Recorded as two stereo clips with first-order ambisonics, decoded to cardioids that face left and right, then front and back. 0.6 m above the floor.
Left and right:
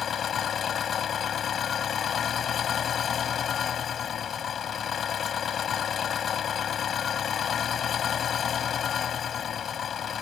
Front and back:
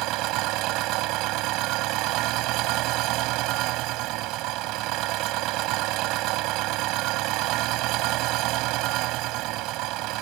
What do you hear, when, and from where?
0.0 s an engine running: 150° left